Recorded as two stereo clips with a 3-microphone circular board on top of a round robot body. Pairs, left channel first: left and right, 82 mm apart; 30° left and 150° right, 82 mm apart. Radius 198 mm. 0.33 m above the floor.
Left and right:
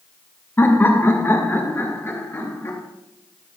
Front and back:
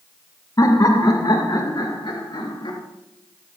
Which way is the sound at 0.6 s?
35° left.